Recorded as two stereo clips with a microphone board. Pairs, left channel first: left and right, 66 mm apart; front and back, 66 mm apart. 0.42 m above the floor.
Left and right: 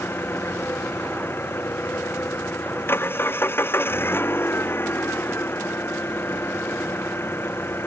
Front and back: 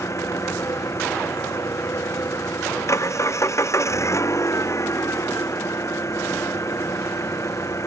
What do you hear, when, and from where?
0.0 s an engine running: 40° left